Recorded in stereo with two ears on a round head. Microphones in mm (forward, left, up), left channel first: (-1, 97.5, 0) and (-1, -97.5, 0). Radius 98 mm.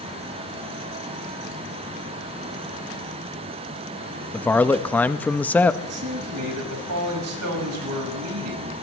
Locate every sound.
4.3 s a man speaking: 5° left (ahead or behind), 0.7 m
5.8 s a man speaking: 75° right (ahead or behind), 5 m